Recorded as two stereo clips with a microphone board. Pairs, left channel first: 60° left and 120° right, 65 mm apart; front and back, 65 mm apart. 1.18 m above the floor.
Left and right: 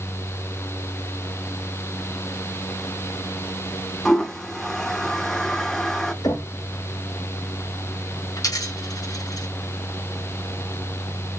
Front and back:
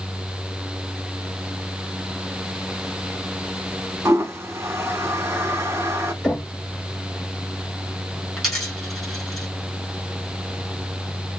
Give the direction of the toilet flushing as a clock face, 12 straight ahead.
7 o'clock.